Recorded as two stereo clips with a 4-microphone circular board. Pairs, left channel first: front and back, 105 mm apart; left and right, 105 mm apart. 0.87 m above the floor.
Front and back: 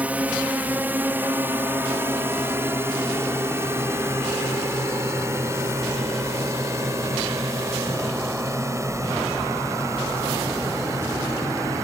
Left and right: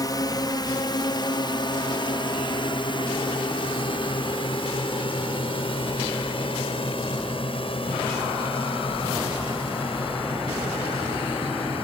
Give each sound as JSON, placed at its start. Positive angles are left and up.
{"t": 0.0, "sound": "a drone", "azimuth_deg": 110}